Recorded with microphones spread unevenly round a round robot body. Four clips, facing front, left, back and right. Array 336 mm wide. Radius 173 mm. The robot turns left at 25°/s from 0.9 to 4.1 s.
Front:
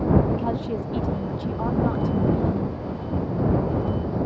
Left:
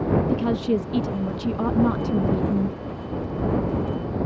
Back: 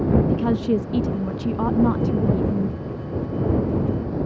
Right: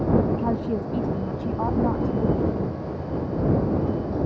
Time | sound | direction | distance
0.3 | a woman speaking | 160° left | ?